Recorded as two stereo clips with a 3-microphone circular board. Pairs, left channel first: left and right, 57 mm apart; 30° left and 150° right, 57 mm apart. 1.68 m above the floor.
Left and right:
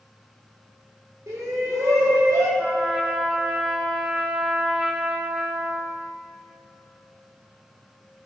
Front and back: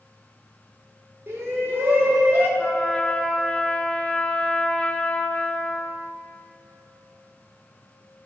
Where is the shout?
110° right, 5 m; by 2.5 s 95° right, 6 m.